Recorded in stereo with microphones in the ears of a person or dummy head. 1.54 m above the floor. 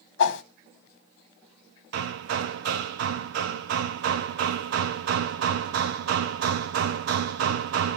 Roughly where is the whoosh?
Left.